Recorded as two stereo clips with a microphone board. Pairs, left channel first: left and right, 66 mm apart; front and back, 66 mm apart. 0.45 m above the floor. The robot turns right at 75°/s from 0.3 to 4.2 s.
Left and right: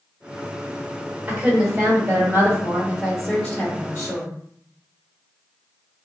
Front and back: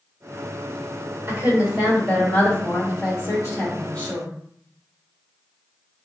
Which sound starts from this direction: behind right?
A woman speaking, at 1.3 s.